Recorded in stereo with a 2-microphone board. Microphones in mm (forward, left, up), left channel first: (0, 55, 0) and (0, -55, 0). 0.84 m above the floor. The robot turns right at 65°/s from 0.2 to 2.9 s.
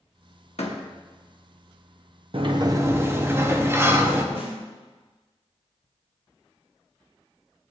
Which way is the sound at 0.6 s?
70° left (ahead or behind).